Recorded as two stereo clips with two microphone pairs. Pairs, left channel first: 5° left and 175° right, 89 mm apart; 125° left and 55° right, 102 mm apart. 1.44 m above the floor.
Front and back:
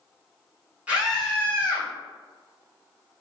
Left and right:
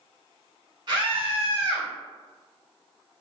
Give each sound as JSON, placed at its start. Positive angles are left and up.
{"t": 0.9, "sound": "a scream", "azimuth_deg": -100, "distance_m": 1.2}